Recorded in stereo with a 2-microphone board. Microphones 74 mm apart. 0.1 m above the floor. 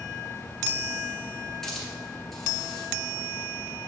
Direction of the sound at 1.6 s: 5° left (ahead or behind).